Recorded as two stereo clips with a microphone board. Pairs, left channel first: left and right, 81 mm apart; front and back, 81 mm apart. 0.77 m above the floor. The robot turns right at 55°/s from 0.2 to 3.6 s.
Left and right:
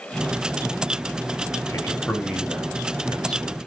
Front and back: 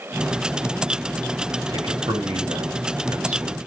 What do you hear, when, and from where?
1.7 s a man speaking: 150° left, 3 m; by 3.6 s 110° right, 3 m